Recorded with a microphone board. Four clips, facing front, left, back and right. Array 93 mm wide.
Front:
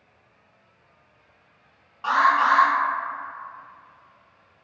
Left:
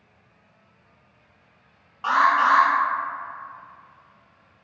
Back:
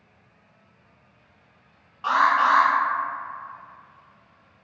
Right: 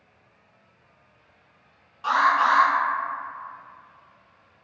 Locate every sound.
2.0 s an alarm: 85° left, 0.9 m